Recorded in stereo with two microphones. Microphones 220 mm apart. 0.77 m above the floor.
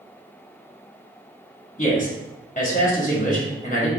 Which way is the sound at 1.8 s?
35° left (ahead or behind).